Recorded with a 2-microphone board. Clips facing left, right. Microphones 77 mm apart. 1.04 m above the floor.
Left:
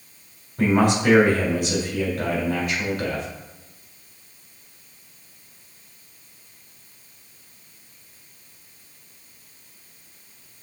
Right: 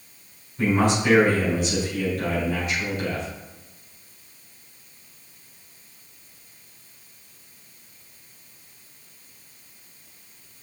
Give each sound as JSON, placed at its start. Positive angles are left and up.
{"t": 0.6, "sound": "a man speaking", "side_deg": 55, "distance_m": 3.0}